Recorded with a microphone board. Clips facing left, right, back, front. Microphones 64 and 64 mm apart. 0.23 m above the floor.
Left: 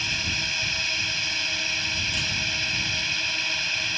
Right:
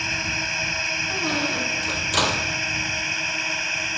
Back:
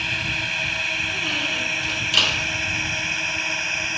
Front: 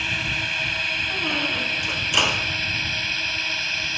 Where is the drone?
90° right; by 4.0 s 130° right.